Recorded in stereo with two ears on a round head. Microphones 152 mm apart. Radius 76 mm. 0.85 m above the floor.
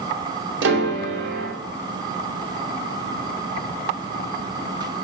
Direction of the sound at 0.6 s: 70° right (ahead or behind).